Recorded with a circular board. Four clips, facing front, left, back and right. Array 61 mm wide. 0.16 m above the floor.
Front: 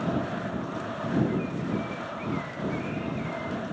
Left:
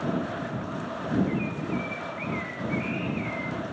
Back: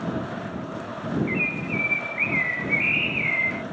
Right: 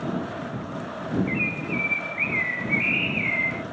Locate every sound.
1.3 s a bird: 145° right